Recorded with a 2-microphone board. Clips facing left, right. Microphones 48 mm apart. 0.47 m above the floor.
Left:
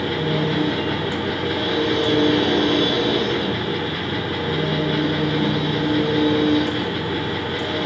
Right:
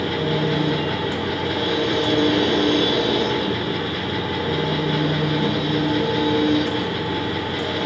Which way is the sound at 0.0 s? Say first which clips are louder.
Even; 5° left (ahead or behind).